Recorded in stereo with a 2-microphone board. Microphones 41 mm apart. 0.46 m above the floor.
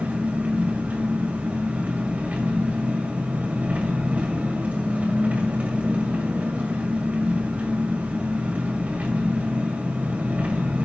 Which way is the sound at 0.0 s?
40° right (ahead or behind).